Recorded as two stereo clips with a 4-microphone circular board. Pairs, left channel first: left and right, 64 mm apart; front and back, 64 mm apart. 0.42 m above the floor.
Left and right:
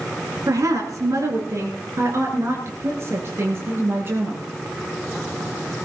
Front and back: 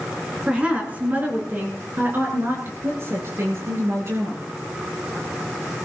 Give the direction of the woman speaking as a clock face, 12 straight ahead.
4 o'clock.